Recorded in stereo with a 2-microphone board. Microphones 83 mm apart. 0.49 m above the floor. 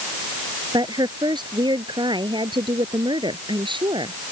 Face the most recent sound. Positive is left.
turn(degrees=-80)